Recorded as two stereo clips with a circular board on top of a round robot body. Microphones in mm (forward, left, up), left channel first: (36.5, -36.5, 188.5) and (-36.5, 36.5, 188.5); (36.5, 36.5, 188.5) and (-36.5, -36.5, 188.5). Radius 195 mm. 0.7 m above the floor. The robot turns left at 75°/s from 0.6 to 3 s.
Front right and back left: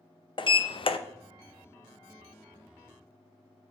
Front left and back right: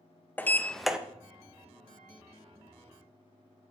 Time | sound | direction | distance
0.4 | a sliding door | 25° right | 0.8 m